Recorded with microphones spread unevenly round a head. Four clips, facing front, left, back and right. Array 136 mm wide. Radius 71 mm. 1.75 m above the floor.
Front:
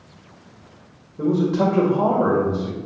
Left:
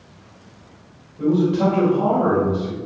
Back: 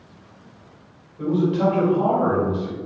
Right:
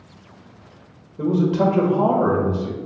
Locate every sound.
1.2 s a man speaking: 50° right, 1.8 m